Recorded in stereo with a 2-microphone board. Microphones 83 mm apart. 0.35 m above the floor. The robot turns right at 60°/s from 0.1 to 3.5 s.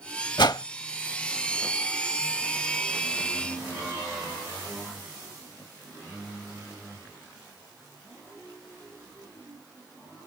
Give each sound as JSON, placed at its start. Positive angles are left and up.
{"t": 0.4, "sound": "a whoosh", "side_deg": 65}